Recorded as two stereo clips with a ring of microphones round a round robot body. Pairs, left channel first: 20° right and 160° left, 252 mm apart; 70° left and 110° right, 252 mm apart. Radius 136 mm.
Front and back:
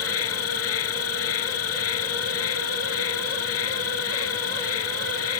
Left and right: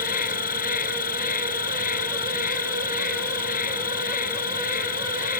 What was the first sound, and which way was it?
An insect, 10° left.